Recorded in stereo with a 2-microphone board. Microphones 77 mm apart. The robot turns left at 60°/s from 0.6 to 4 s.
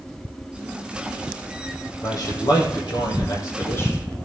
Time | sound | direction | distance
2.0 | a man speaking | 135° left | 6 m